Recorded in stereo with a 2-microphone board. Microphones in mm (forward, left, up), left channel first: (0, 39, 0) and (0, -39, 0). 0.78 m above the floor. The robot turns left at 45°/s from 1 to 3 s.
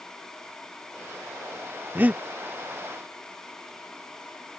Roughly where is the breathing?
Right.